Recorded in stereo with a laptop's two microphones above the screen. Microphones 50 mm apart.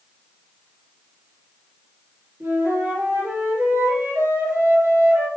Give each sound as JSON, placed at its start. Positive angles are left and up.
{"t": 2.4, "sound": "a flute", "side_deg": -65, "distance_m": 3.5}